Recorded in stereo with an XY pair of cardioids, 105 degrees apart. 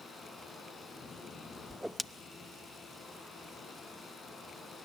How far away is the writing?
I don't hear writing.